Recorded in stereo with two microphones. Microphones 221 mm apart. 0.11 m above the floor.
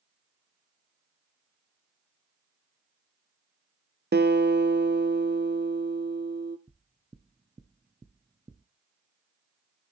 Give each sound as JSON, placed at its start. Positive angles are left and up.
{"t": 4.1, "sound": "a guitar", "side_deg": -55, "distance_m": 0.7}
{"t": 6.7, "sound": "knocking", "side_deg": -20, "distance_m": 0.9}